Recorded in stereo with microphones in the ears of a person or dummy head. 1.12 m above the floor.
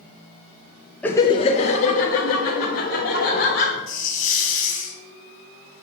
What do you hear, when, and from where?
1.0 s laughter: 10° left (ahead or behind), 0.5 m; by 3.8 s 60° left (ahead or behind), 3 m
3.9 s a hiss: 50° left (ahead or behind), 1.9 m